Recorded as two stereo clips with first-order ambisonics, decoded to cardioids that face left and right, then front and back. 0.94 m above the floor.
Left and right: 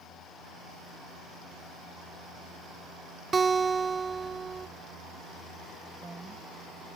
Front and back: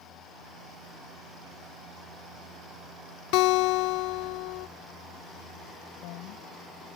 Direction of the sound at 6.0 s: 5° right.